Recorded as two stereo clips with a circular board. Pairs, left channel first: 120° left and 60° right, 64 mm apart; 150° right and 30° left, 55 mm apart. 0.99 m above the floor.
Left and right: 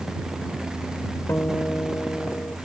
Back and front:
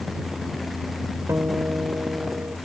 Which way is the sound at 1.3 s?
65° left.